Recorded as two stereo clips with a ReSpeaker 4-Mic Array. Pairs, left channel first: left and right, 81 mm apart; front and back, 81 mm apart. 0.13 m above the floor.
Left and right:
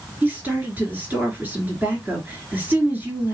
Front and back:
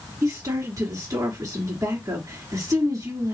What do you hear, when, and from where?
0.2 s a woman speaking: 155° right, 1.7 m